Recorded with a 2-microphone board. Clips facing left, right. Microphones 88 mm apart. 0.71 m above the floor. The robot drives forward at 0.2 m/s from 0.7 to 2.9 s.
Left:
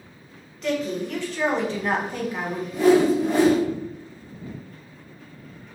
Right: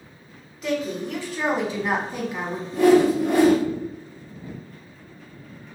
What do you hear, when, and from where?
0.6 s a woman speaking: 5° right (ahead or behind), 1.1 m; by 2.6 s 10° right (ahead or behind), 0.7 m
2.7 s a whoosh: 65° right (ahead or behind), 1.1 m